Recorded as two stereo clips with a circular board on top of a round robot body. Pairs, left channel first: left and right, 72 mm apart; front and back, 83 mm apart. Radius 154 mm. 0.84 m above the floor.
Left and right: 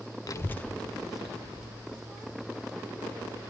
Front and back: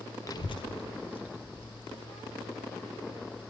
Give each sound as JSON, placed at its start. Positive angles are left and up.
{"t": 0.3, "sound": "a child speaking", "azimuth_deg": 50, "distance_m": 0.6}